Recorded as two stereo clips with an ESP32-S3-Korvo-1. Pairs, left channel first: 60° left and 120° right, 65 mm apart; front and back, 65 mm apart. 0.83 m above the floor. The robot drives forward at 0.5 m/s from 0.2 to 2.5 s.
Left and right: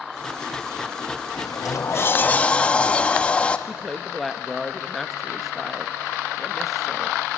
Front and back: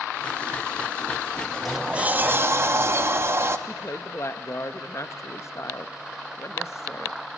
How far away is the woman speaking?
About 0.7 m.